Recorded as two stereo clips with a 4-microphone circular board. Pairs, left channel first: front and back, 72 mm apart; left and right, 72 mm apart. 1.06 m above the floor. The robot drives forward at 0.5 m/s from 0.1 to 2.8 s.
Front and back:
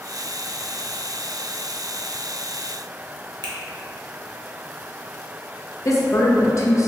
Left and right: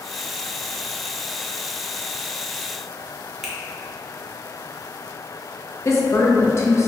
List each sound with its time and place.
3.4 s a finger snap: 175° right, 0.7 m
5.8 s a woman speaking: 40° left, 0.7 m